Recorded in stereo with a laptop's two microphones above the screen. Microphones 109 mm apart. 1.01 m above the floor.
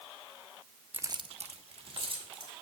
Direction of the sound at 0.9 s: 15° right (ahead or behind).